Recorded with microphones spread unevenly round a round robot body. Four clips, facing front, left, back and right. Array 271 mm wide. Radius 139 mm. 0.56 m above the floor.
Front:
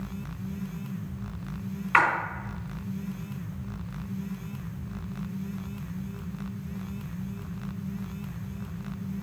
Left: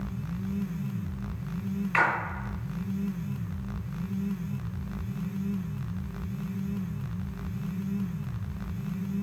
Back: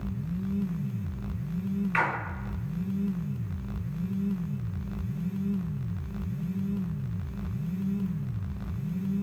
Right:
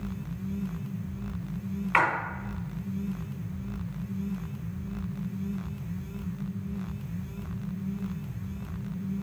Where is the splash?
30° right, 2.5 m.